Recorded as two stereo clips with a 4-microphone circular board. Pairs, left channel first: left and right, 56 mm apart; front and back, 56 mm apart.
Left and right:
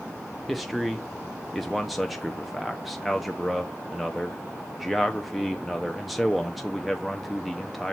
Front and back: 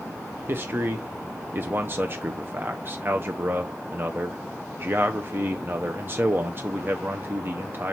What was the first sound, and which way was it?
A man speaking, straight behind.